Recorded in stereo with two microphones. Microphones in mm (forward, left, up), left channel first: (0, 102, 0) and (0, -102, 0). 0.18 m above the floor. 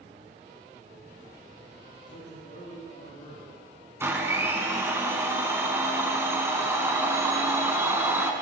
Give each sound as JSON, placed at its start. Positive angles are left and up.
{"t": 2.1, "sound": "a man speaking", "side_deg": 55, "distance_m": 4.0}
{"t": 4.0, "sound": "a blender", "side_deg": -10, "distance_m": 1.7}